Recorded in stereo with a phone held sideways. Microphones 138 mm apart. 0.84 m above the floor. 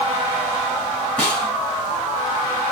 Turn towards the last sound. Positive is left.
turn(degrees=10)  # may be behind; listen again after turning